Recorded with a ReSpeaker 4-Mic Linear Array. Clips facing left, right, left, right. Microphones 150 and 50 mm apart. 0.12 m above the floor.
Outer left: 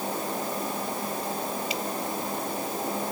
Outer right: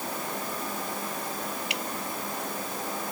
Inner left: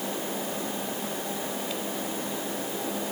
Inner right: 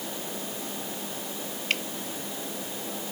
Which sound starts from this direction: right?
Dripping, at 1.7 s.